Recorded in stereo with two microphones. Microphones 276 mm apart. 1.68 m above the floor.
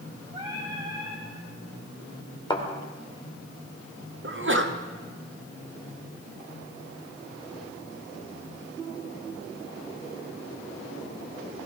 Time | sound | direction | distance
0.3 | singing | 20° right (ahead or behind) | 6.5 m
2.5 | a thud | 15° left (ahead or behind) | 2 m
4.2 | a sneeze | 45° right (ahead or behind) | 0.9 m